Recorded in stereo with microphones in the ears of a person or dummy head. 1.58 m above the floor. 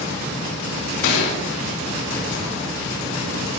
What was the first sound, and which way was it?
A gunshot, 60° left (ahead or behind).